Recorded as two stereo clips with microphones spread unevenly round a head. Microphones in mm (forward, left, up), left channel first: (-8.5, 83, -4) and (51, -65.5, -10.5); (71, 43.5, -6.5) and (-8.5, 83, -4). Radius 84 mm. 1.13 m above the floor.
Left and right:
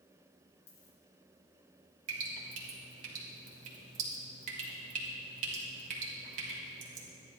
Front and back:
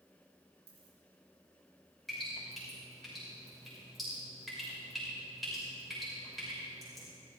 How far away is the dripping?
About 2.5 m.